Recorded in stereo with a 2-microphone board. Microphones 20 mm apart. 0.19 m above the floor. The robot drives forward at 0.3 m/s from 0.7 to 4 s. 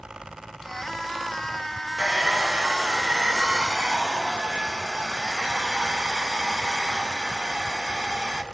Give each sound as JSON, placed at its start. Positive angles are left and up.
{"t": 2.0, "sound": "a hair dryer", "side_deg": -35, "distance_m": 0.6}